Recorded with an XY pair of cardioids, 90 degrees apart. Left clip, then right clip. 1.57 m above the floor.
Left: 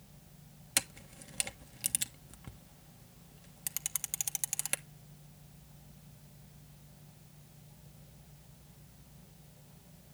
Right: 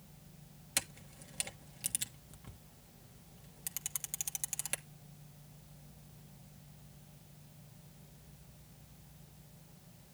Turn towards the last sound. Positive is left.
turn(degrees=30)